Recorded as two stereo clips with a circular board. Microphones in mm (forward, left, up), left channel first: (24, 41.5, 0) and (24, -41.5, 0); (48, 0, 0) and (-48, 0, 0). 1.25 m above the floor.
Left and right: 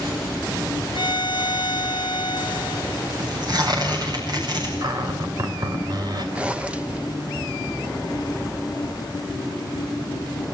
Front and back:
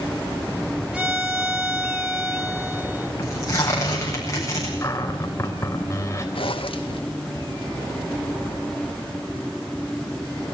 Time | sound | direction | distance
0.9 | a violin | 100° left | 1.5 m
3.2 | tearing paper | 55° right | 9.5 m
4.8 | a cupboard door | 60° right | 3.5 m
6.3 | a zipper | 15° right | 1.4 m